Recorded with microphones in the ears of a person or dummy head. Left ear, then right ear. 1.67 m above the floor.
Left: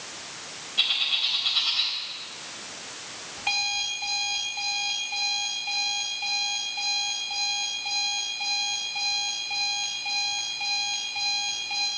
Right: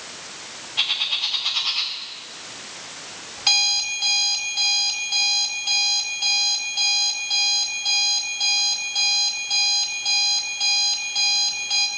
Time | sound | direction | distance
0.8 | a bird | 35° right (ahead or behind) | 1.9 m
3.4 | an alarm clock | 65° right (ahead or behind) | 3 m